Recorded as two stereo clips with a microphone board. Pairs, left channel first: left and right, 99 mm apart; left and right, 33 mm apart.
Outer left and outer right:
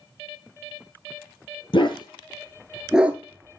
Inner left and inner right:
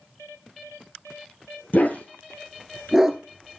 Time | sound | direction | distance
1.7 | a dog barking | 55° left (ahead or behind) | 1.3 m